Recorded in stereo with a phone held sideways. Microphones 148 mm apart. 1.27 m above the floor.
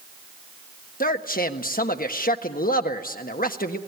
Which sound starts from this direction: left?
A man speaking, at 1.0 s.